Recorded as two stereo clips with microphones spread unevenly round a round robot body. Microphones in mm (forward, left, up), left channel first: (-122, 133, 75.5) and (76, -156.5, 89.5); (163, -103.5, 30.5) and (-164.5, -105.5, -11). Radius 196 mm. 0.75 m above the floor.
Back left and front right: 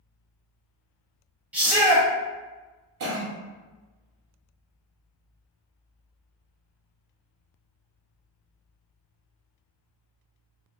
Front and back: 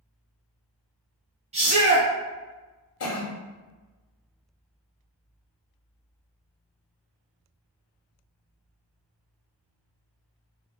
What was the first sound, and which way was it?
A shout, 145° right.